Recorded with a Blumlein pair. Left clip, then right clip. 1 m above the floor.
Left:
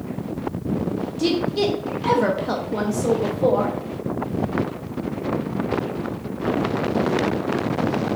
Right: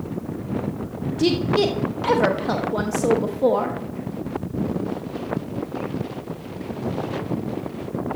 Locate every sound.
1.2 s a woman speaking: 10° right, 1.1 m